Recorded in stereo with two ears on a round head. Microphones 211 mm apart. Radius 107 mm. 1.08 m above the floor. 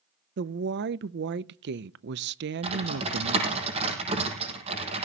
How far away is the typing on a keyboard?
About 5.5 m.